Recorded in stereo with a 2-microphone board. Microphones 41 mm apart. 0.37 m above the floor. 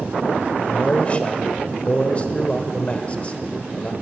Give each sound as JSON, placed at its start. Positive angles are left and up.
{"t": 0.6, "sound": "a man speaking", "side_deg": 30, "distance_m": 1.0}